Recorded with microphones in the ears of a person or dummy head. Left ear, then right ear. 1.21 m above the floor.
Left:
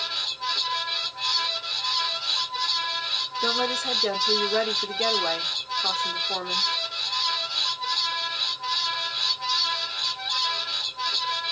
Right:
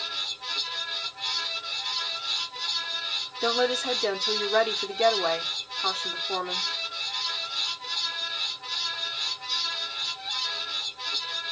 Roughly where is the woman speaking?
Right.